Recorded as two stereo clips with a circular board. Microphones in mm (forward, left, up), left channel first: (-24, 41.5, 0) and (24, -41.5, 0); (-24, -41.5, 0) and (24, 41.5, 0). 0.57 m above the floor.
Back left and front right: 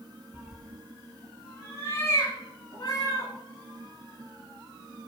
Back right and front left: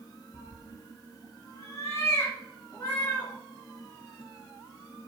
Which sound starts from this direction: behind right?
A cat meowing, at 0.3 s.